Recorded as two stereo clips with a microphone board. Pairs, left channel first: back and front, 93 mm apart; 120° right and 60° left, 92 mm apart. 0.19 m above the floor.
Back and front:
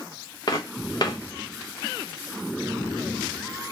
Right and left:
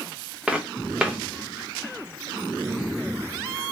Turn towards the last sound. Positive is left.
turn(degrees=140)